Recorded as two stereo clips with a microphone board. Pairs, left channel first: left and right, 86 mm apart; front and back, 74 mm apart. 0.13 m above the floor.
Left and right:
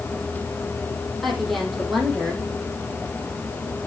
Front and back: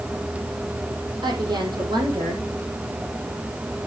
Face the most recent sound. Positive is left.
turn(degrees=180)